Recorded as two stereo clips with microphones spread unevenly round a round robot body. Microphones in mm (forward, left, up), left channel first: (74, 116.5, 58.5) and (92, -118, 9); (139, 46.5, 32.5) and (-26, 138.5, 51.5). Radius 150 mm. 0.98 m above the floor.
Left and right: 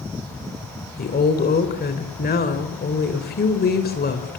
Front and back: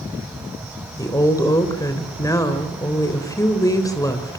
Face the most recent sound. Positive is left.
turn(degrees=45)